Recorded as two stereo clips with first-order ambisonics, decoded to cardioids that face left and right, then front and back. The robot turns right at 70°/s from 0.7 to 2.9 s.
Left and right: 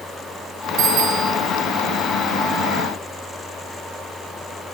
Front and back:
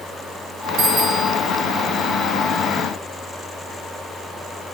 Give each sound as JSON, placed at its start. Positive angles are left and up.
{"t": 0.8, "sound": "a bicycle bell", "azimuth_deg": -135, "distance_m": 3.5}